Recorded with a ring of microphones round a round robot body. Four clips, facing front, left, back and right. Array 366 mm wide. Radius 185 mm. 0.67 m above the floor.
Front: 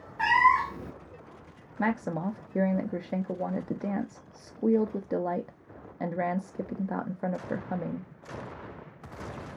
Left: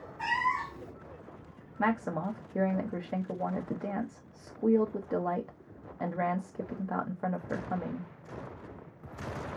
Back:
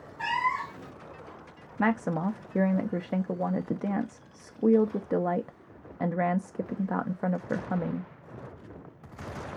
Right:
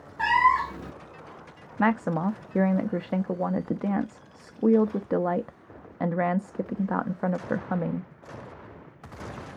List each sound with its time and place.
0.2 s a cat meowing: 55° right, 0.6 m
1.8 s a woman speaking: 105° right, 0.6 m